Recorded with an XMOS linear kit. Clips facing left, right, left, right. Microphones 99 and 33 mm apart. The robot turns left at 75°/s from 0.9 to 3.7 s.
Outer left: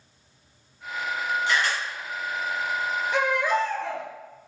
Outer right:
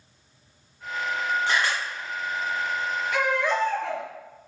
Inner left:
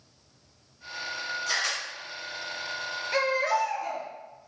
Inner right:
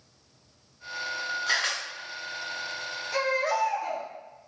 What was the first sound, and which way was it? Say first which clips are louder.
A camera shutter: outer left 1 dB, inner right 2 dB; 40° right (ahead or behind).